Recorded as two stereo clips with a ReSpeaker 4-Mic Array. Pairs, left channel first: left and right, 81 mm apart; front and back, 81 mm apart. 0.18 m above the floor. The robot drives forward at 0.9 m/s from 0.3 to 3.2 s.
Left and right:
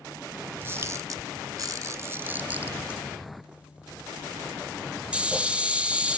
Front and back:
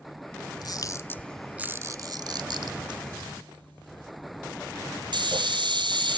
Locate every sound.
0.6 s a camera shutter: 30° right, 0.9 m; by 6.2 s 165° right, 1.7 m